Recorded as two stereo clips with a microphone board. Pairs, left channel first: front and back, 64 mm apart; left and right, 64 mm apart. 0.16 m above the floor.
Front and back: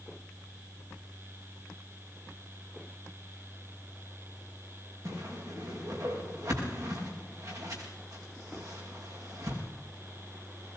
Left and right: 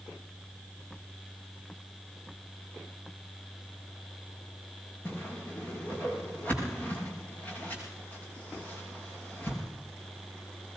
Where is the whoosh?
150° left, 7 m.